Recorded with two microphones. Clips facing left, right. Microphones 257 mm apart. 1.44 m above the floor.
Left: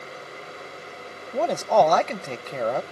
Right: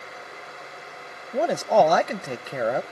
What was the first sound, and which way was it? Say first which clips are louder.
A man speaking: right 1 dB; 10° right (ahead or behind).